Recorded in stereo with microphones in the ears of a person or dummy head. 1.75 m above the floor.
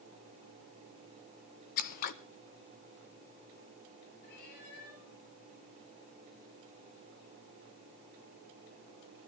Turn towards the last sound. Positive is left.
turn(degrees=55)  # may be behind; listen again after turning